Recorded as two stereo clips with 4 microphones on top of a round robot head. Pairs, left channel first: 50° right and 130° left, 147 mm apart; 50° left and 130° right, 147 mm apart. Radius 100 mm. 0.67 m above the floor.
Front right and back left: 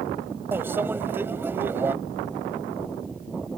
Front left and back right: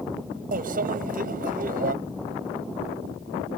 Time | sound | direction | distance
0.5 | a microwave | 155° right | ?